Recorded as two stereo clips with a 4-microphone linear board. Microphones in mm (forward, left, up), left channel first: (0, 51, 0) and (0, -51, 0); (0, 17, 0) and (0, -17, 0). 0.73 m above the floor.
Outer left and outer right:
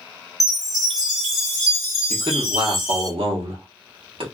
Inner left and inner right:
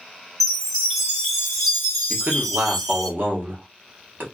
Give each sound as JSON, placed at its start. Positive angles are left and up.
{"t": 0.4, "sound": "a chime", "side_deg": -5, "distance_m": 1.3}
{"t": 2.1, "sound": "a man speaking", "side_deg": -65, "distance_m": 1.1}